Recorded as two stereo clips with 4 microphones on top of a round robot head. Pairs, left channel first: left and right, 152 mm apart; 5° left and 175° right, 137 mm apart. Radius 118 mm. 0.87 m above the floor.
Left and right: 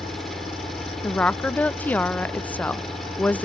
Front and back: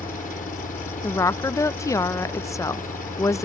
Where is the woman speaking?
25° left.